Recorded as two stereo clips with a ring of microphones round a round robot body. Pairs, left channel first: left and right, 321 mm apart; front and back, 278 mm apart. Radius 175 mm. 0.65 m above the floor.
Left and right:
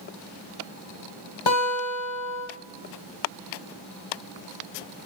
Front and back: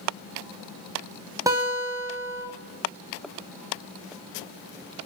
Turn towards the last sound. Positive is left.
turn(degrees=100)